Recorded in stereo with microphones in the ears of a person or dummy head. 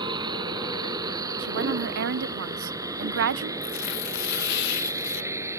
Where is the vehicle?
20° right (ahead or behind); by 5.6 s 10° right (ahead or behind).